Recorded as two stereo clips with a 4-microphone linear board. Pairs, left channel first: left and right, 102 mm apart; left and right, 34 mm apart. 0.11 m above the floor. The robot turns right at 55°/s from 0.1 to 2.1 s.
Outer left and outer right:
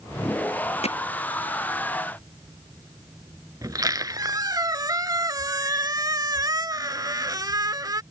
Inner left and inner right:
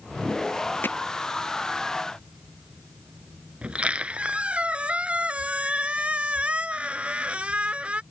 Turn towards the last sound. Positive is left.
turn(degrees=-40)  # may be behind; listen again after turning